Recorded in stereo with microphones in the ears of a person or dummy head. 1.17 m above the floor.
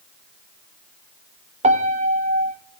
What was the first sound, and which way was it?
A piano, 30° right (ahead or behind).